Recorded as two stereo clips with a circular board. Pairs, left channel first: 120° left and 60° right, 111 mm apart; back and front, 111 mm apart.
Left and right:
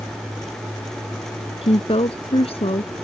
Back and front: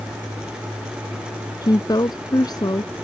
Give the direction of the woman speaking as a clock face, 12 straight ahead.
8 o'clock.